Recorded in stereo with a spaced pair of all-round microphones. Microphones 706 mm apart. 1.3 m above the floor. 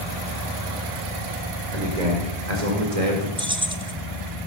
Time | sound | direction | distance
1.7 | a man speaking | 75° right (ahead or behind) | 4.5 m
3.4 | keys jangling | 5° right (ahead or behind) | 1.0 m